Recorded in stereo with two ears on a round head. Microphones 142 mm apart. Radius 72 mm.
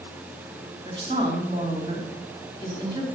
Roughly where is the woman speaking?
Right.